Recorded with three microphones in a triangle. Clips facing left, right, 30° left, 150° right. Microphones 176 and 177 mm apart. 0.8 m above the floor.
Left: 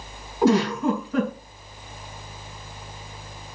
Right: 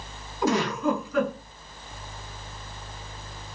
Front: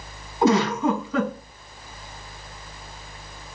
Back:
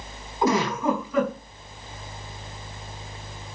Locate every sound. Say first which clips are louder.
0.4 s a giggle: left 5 dB, front 3 dB; 95° left, 4 m